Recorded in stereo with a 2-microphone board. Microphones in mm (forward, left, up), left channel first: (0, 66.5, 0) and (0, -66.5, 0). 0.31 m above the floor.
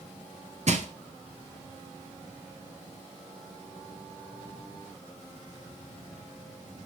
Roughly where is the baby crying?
No baby crying in this recording.